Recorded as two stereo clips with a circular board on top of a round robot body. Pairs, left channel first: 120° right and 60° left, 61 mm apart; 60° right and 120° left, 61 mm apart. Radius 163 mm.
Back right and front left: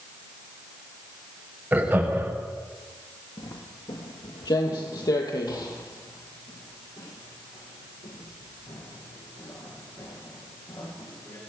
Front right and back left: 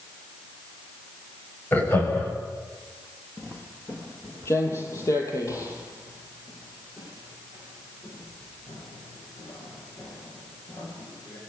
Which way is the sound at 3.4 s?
120° right.